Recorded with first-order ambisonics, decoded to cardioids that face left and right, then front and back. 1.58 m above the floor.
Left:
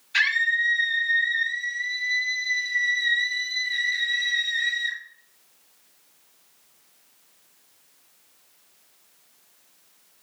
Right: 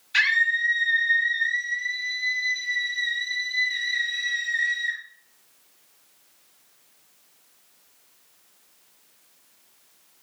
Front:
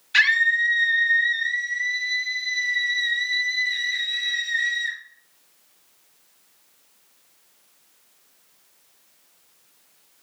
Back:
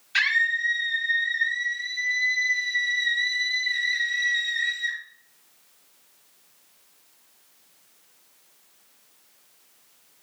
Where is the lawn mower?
I don't hear a lawn mower.